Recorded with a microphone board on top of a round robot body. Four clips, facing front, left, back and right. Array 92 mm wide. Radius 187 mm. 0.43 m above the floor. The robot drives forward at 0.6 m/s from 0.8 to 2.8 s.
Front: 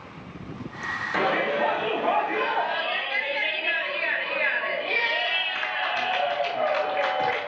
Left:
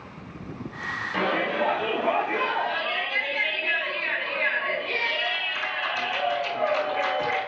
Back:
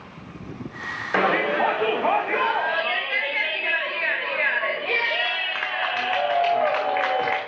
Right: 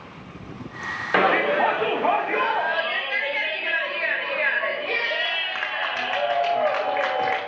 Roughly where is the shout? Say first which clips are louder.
Right 7 dB, back 4 dB; behind right.